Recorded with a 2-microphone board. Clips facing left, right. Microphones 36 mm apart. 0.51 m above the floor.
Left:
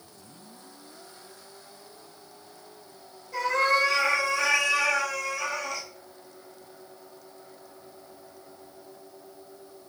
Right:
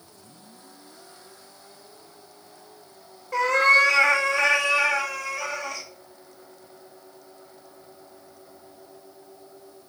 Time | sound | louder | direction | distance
3.3 | a cat meowing | right 6 dB | 65° right (ahead or behind) | 0.8 m